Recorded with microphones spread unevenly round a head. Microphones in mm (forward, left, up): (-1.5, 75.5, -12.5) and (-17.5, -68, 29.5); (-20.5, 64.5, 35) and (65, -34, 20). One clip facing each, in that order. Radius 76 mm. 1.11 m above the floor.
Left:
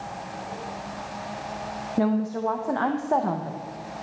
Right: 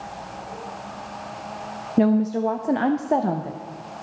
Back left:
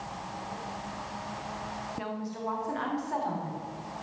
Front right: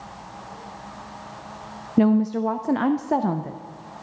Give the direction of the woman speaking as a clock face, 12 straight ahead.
1 o'clock.